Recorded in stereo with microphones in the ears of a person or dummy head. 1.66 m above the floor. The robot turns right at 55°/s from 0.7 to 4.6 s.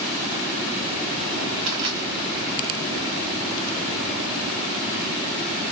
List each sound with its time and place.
1.7 s crushing: 40° right (ahead or behind), 1.3 m; by 2.0 s 45° right (ahead or behind), 1.3 m